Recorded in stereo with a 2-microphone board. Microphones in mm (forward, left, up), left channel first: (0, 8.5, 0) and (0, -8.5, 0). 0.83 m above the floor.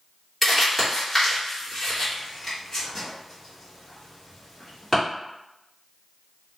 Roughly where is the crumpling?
Centre.